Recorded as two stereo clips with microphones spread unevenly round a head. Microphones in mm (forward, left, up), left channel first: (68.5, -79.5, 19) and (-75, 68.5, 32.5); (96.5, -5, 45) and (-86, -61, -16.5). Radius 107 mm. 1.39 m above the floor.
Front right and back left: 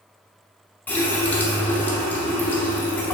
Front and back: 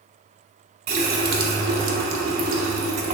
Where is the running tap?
130° right, 0.5 m.